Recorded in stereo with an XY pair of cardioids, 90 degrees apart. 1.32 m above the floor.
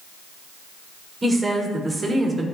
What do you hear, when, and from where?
1.2 s a woman speaking: 25° right, 4 m; by 2.5 s 30° right, 3.5 m